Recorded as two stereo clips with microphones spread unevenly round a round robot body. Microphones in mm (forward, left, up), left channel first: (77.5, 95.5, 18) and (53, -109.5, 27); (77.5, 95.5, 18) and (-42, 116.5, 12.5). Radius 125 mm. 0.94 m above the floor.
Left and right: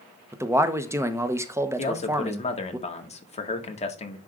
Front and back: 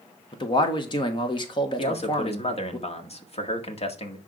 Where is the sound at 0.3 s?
25° right, 1.0 m.